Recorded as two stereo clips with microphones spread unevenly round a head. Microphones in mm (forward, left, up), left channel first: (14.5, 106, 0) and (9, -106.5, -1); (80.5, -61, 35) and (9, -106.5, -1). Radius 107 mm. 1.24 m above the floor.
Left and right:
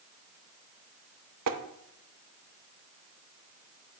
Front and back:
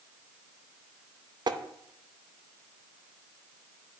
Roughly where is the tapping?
Right.